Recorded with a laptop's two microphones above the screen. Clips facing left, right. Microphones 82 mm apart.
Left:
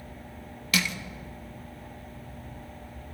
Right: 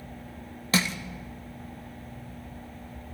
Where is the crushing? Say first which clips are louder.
Right 2 dB; 30° right (ahead or behind), 0.8 m.